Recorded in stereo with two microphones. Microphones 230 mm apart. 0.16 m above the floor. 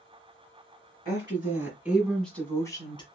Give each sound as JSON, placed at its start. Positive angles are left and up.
{"t": 1.1, "sound": "a woman speaking", "side_deg": -25, "distance_m": 1.3}